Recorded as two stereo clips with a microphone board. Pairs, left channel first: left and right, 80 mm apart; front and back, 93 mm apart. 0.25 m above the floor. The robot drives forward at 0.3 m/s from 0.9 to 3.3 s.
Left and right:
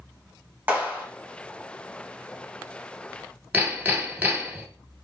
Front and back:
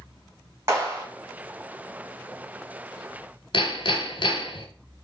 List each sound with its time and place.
0.7 s a clap: 145° right, 1.4 m; by 1.1 s 150° right, 1.5 m
3.5 s hammering: 25° right, 0.7 m